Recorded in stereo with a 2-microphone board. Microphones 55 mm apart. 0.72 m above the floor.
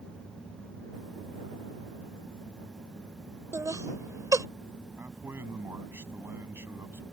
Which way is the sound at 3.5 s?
65° right (ahead or behind).